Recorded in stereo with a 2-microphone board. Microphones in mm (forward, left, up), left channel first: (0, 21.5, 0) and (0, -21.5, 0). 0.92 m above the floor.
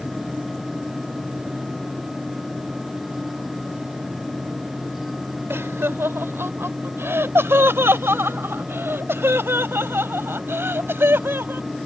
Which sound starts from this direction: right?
Laughter, at 5.5 s.